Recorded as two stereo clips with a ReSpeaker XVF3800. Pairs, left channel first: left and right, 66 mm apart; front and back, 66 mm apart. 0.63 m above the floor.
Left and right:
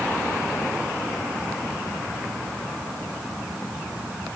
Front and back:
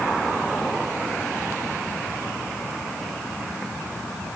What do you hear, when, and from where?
Only background noise.